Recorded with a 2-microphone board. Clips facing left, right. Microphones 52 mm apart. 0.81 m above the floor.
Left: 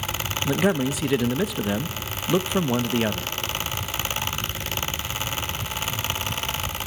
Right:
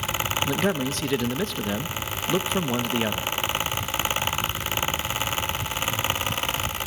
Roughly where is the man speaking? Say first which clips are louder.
Left 6 dB; centre.